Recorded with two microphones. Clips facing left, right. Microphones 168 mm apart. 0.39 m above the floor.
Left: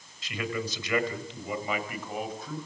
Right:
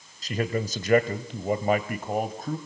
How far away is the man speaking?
About 2 m.